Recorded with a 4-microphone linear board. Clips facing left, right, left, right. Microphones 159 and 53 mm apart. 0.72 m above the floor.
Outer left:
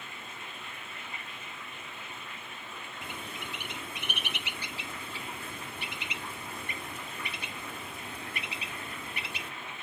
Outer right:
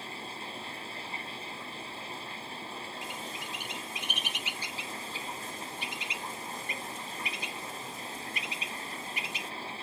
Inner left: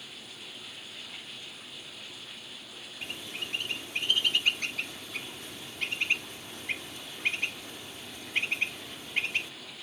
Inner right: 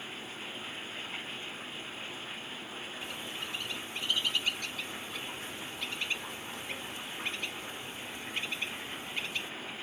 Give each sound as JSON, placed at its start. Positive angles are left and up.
{"t": 0.0, "sound": "running water", "side_deg": -30}
{"t": 3.0, "sound": "a bird", "side_deg": 60}